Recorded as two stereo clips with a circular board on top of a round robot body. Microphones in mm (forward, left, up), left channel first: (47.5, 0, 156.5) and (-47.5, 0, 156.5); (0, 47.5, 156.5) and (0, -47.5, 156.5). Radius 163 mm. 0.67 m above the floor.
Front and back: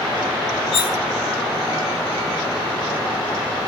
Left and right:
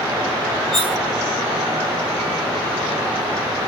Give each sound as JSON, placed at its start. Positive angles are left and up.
{"t": 0.7, "sound": "cutlery clinking", "azimuth_deg": 0, "distance_m": 0.7}